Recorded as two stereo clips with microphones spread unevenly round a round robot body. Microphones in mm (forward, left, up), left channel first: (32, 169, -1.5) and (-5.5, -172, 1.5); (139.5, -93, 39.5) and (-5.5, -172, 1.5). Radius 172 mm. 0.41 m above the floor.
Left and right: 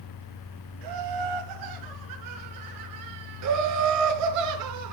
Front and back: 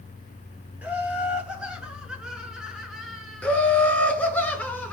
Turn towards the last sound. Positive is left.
turn(degrees=-55)